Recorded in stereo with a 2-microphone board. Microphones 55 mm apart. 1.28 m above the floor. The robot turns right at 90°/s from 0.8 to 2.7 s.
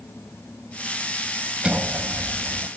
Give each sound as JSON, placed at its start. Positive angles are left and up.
{"t": 1.6, "sound": "a sliding door", "azimuth_deg": -165}